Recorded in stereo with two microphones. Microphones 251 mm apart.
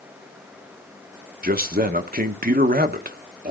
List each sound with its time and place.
1.4 s a man speaking: 35° right (ahead or behind), 0.8 m